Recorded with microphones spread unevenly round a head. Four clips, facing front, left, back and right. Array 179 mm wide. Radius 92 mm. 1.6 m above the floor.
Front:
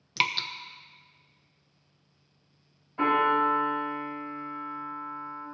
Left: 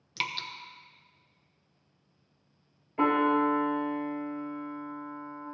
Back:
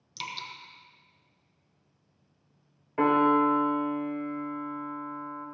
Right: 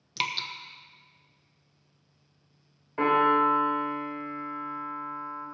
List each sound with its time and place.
0.2 s dripping: 15° right, 1.0 m
3.0 s a piano: 165° right, 3.5 m